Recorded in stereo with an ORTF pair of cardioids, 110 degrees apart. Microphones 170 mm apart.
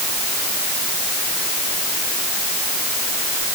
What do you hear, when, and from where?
Only background noise.